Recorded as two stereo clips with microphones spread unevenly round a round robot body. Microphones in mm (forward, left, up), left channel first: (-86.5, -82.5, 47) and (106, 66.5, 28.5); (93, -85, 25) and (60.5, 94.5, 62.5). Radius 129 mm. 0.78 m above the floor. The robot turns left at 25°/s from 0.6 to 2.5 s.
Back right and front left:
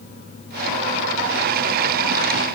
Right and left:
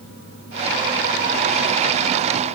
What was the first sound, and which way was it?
Only background noise.